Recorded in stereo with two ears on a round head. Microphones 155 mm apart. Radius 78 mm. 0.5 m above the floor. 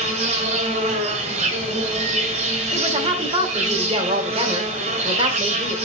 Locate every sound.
0.0 s an insect: 40° right (ahead or behind), 2.0 m
2.7 s a woman speaking: 35° right (ahead or behind), 1.6 m